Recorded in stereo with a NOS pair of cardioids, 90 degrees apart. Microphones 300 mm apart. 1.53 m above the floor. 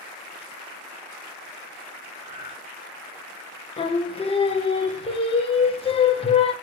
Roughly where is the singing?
Ahead.